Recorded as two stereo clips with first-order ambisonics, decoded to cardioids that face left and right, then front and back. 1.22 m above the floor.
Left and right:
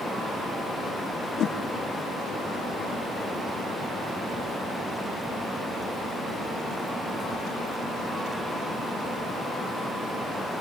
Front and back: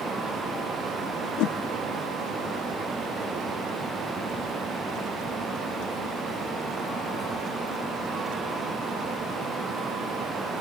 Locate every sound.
1.4 s a whoosh: 35° left, 0.6 m